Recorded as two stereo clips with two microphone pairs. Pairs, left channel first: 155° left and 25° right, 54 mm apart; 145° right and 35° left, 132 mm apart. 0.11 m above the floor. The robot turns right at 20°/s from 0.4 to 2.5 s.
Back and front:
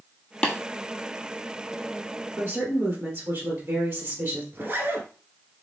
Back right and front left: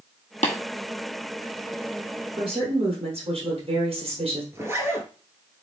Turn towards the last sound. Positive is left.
turn(degrees=-20)